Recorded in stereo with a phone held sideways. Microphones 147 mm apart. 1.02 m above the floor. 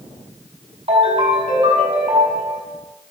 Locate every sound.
0.9 s a ringtone: 40° right (ahead or behind), 4.5 m